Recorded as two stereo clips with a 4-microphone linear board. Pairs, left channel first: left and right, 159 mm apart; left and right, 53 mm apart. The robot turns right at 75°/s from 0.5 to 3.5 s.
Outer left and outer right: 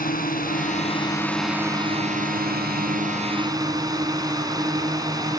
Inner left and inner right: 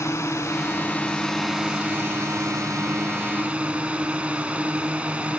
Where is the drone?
110° left; by 5.4 s 25° right.